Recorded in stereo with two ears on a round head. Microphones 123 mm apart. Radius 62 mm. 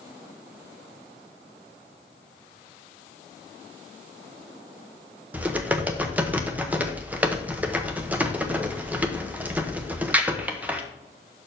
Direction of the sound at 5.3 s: 10° right (ahead or behind).